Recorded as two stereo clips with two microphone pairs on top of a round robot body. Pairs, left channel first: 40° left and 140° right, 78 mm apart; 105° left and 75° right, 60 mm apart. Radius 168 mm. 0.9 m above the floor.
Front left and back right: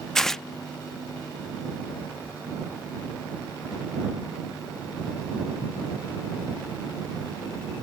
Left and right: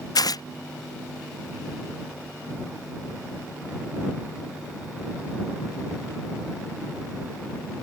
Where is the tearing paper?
130° left.